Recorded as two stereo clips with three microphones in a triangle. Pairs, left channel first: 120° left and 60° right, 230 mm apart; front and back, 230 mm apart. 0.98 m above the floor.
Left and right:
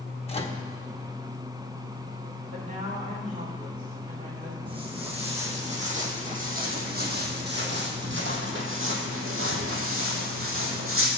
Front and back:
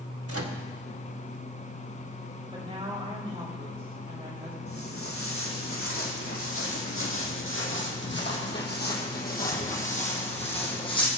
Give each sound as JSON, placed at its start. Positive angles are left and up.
{"t": 0.3, "sound": "a microwave", "azimuth_deg": -175, "distance_m": 1.1}
{"t": 2.5, "sound": "a woman speaking", "azimuth_deg": -115, "distance_m": 4.0}
{"t": 4.7, "sound": "footsteps", "azimuth_deg": 5, "distance_m": 3.0}